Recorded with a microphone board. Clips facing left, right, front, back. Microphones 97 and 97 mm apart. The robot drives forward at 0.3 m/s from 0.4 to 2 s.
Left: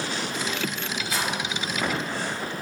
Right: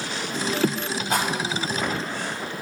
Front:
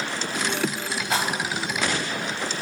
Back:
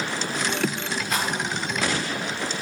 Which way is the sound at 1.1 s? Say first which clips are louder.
Right 5 dB, front 2 dB; 60° right.